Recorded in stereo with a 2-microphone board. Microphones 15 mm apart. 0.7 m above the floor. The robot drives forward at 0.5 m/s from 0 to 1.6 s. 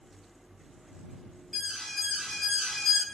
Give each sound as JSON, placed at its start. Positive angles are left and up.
{"t": 1.5, "sound": "an alarm", "side_deg": 55, "distance_m": 6.0}